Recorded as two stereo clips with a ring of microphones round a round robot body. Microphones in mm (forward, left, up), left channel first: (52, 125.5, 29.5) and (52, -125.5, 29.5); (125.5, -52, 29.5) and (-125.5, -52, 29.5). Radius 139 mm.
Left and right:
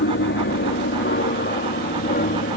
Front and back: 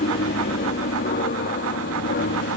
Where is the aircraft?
55° left; by 2.6 s 45° left.